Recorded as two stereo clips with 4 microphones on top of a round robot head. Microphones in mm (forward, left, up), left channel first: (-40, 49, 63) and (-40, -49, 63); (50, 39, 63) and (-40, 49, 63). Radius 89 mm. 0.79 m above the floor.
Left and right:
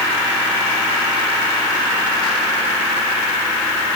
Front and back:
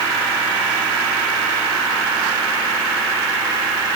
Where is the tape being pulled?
I don't hear tape being pulled.